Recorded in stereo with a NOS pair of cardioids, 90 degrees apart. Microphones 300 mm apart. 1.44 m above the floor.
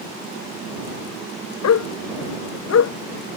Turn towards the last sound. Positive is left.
turn(degrees=55)